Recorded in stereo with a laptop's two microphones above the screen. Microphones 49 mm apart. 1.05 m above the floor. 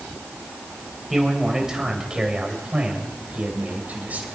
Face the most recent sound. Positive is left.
turn(degrees=-35)  # may be behind; listen again after turning